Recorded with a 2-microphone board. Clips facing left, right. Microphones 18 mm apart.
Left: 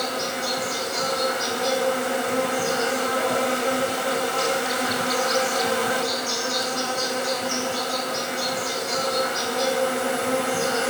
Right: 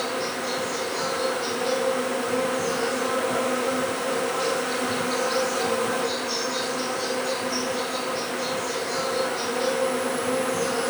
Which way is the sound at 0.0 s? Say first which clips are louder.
Left 1 dB; 65° left (ahead or behind).